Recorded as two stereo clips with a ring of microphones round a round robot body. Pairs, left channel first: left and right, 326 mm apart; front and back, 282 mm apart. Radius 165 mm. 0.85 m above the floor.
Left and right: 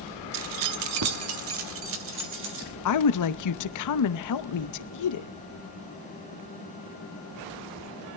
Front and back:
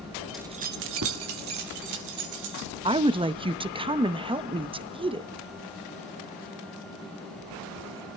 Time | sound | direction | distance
0.3 | keys jangling | 90° right | 0.5 m
2.9 | a woman speaking | 110° left | 0.8 m